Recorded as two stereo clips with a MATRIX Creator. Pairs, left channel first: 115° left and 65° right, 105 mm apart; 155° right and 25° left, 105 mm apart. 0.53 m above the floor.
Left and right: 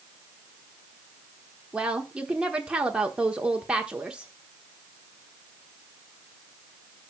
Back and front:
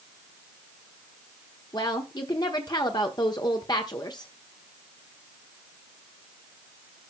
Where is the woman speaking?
145° right, 1.0 m.